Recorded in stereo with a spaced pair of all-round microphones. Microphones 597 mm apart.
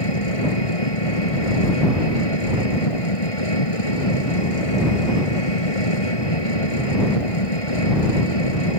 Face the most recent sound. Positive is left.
turn(degrees=60)  # may be behind; listen again after turning